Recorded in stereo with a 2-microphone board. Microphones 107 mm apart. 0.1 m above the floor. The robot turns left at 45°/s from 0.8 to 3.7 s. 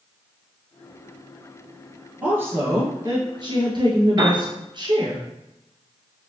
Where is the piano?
35° right (ahead or behind), 2 m.